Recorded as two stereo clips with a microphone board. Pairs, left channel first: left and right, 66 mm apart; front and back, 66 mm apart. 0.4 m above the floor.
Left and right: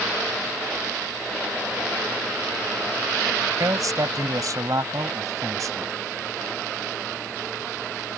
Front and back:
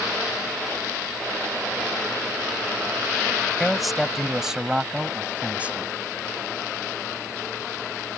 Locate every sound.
3.6 s a man speaking: 90° right; by 5.9 s 115° right